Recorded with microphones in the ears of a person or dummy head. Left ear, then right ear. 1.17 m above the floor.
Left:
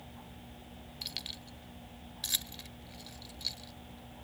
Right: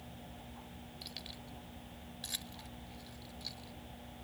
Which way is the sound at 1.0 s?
20° left (ahead or behind).